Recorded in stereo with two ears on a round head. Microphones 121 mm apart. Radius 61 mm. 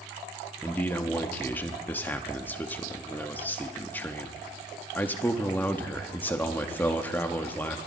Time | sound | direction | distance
0.6 | a man speaking | 15° left (ahead or behind) | 0.9 m